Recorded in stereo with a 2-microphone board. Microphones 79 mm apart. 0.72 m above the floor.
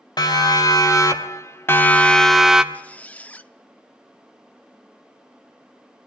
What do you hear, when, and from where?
0.2 s a siren: 65° left (ahead or behind), 3 m; by 2.6 s 10° right (ahead or behind), 1.6 m
2.7 s a squeak: 20° left (ahead or behind), 0.8 m